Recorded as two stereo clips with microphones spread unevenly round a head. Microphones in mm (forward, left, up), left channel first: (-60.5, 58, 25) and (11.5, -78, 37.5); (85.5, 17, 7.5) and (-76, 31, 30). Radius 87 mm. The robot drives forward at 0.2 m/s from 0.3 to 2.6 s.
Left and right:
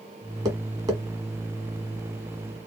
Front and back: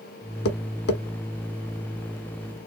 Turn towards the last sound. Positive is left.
turn(degrees=10)